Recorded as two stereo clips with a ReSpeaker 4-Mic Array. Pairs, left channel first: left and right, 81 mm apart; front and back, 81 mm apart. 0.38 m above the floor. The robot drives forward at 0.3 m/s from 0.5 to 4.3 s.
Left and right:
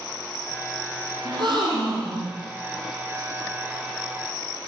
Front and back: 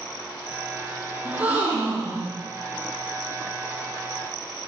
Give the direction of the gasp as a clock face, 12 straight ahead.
4 o'clock.